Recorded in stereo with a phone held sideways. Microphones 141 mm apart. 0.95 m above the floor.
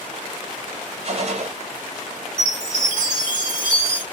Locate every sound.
1.0 s a gunshot: 45° right (ahead or behind), 1.2 m
2.4 s a chime: 10° left (ahead or behind), 1.5 m